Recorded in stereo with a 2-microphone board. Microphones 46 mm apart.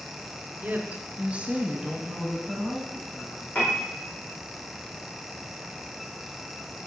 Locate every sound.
0.6 s a woman speaking: 35° right (ahead or behind), 2.0 m; by 3.5 s 15° left (ahead or behind), 3 m
3.5 s a piano: 35° left (ahead or behind), 4.5 m